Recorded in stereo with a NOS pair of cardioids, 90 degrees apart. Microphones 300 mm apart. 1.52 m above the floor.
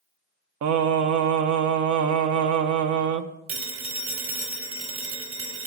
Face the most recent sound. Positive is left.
turn(degrees=-70)